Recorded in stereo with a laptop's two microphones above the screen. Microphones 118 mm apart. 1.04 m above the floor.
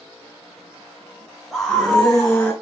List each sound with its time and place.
1.5 s a scream: centre (ahead or behind), 0.8 m; by 2.5 s 5° left (ahead or behind), 1.6 m